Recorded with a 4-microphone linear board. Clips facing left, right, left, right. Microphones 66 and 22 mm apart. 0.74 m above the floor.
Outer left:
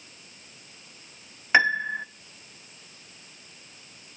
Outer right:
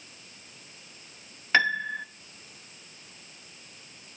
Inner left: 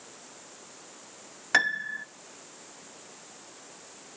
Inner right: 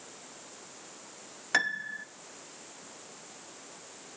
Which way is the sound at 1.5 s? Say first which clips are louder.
Outer left 3 dB, inner left 4 dB; 20° left (ahead or behind).